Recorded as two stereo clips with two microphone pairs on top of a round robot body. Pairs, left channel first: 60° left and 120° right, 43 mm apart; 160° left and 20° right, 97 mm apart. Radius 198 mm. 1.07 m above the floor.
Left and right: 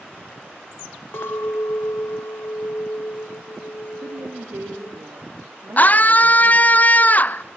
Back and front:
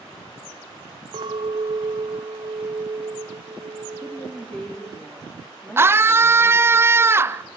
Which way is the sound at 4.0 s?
125° right.